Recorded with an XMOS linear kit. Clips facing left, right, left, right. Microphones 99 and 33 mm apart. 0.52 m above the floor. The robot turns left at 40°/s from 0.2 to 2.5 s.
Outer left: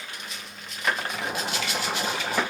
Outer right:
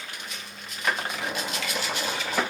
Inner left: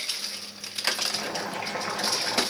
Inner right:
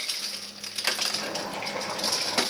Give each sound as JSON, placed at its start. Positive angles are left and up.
{"t": 1.1, "sound": "boiling", "azimuth_deg": 155, "distance_m": 6.0}